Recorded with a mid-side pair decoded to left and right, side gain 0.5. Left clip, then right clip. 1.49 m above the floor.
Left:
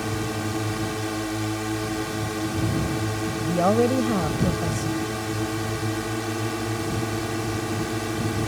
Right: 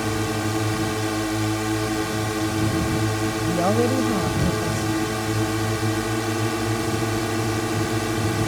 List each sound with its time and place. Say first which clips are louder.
0.0 s a drone: right 4 dB; 25° right
3.4 s a woman speaking: left 1 dB; 10° left